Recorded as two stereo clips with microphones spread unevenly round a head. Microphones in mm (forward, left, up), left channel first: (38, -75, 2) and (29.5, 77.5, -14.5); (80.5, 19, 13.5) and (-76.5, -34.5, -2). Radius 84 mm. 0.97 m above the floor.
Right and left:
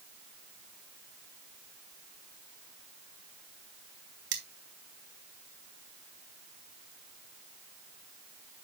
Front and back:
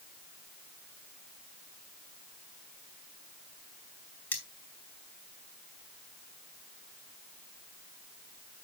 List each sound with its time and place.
4.3 s cutlery clinking: 100° left, 2.5 m